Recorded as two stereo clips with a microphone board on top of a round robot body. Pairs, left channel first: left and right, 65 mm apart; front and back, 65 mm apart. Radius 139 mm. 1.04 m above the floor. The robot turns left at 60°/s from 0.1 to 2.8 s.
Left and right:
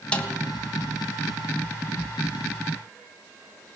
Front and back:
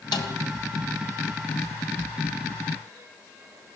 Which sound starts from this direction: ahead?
A snare drum, at 0.1 s.